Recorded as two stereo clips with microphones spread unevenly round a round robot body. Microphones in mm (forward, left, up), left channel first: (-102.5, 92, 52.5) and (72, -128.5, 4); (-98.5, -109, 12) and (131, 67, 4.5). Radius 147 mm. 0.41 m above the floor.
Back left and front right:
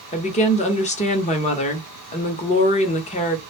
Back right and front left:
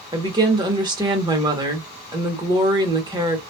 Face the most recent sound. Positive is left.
turn(degrees=80)